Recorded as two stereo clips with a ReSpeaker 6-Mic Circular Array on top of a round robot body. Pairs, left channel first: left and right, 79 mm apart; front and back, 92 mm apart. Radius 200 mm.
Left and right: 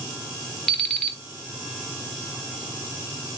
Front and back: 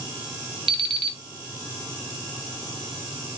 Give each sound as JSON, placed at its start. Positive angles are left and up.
{"t": 0.7, "sound": "an alarm clock", "azimuth_deg": 170, "distance_m": 0.9}